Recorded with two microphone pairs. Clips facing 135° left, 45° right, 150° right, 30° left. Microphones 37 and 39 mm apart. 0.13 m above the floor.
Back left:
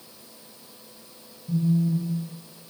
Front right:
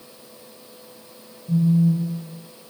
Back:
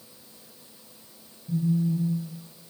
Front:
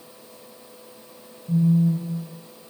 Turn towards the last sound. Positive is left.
turn(degrees=45)